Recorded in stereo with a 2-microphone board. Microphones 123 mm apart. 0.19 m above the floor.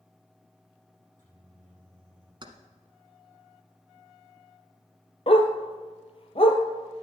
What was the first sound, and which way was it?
A microwave, 75° left (ahead or behind).